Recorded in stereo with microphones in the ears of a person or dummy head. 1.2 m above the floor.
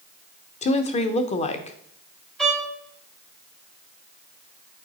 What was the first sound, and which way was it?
A woman speaking, 35° left (ahead or behind).